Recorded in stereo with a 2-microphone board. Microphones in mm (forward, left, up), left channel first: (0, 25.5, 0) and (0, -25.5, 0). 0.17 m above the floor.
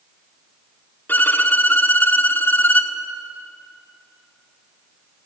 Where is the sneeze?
I don't hear a sneeze.